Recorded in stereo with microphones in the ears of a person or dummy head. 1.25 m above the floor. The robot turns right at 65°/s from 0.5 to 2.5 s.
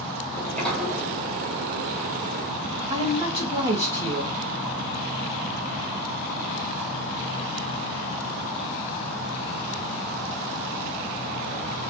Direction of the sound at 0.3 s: 15° left (ahead or behind).